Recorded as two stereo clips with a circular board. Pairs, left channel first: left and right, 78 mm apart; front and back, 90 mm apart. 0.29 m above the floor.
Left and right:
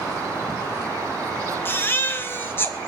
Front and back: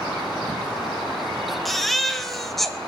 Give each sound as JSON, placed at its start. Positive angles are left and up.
{"t": 1.6, "sound": "a baby crying", "azimuth_deg": 85, "distance_m": 0.8}